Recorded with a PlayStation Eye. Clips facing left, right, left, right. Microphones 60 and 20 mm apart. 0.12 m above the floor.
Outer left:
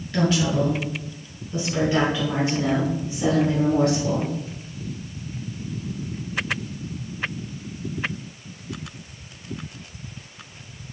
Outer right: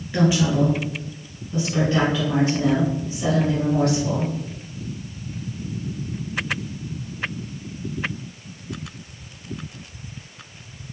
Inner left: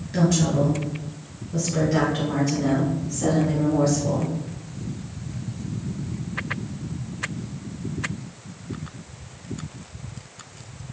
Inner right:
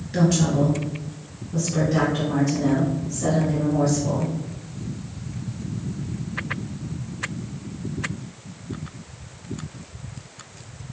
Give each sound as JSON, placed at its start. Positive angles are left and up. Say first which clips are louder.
{"t": 0.1, "sound": "a woman speaking", "louder": "outer right 2 dB, inner right 1 dB", "side_deg": -15, "distance_m": 1.7}